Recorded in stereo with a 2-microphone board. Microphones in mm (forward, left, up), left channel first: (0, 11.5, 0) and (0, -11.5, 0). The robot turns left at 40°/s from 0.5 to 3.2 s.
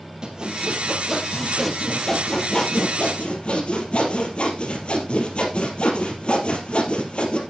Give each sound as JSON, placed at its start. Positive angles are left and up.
{"t": 0.2, "sound": "sawing", "azimuth_deg": -140, "distance_m": 3.0}